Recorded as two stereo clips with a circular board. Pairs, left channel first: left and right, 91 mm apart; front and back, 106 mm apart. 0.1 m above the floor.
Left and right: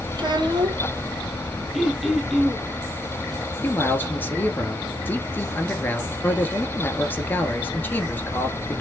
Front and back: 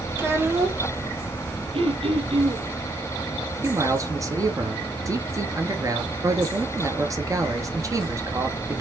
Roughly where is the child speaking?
Behind right.